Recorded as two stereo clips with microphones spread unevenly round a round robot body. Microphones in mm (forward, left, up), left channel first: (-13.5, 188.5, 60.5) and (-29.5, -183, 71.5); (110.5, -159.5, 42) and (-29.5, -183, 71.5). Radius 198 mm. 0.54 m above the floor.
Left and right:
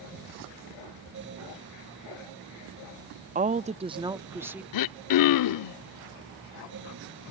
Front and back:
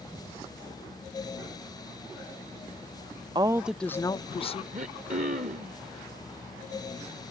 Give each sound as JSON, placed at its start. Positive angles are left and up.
{"t": 3.4, "sound": "a woman speaking", "azimuth_deg": -130}
{"t": 4.7, "sound": "throat clearing", "azimuth_deg": 130}